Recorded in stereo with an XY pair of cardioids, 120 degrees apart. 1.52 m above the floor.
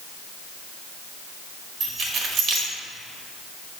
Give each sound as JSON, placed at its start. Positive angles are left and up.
{"t": 1.8, "sound": "keys jangling", "azimuth_deg": -65, "distance_m": 1.6}